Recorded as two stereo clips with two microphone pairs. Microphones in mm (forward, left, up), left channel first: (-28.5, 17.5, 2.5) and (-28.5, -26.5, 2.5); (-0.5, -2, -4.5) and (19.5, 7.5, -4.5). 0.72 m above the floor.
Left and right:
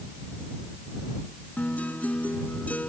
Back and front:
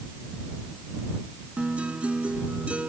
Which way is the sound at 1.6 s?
35° left.